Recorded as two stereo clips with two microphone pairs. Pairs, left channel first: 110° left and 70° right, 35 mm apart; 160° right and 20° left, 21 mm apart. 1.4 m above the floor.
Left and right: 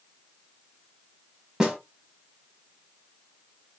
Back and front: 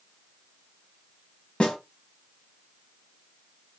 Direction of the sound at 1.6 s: 135° right.